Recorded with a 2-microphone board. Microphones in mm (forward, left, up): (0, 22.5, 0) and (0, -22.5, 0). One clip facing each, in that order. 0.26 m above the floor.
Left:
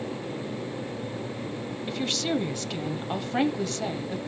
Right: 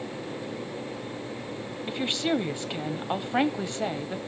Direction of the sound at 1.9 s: 15° right (ahead or behind).